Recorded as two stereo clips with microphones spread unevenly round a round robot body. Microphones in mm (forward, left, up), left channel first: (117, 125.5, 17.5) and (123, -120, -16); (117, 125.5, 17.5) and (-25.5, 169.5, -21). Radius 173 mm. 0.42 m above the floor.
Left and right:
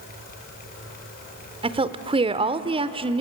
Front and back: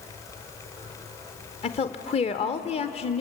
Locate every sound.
1.6 s a woman speaking: 65° right, 0.8 m